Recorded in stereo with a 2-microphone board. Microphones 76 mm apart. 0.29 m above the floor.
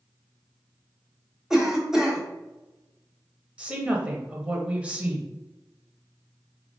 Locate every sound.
1.5 s a cough: 5° right (ahead or behind), 1.2 m
3.6 s a woman speaking: 15° right (ahead or behind), 0.9 m